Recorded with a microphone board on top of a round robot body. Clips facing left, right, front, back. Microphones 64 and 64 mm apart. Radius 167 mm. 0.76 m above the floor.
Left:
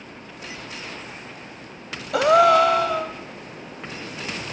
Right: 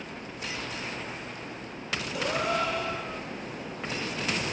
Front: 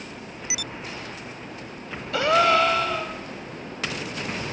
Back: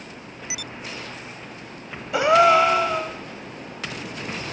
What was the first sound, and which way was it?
A gasp, 110° left.